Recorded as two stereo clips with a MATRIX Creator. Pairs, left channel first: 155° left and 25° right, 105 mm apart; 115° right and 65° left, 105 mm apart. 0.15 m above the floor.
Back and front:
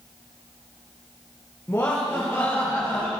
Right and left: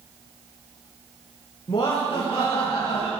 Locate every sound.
1.7 s laughter: 140° right, 3 m